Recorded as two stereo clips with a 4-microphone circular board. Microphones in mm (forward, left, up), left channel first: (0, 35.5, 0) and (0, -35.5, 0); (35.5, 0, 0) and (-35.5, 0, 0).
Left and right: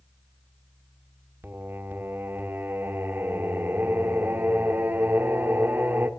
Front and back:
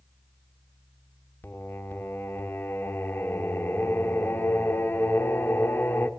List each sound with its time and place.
1.4 s singing: 45° right, 1.5 m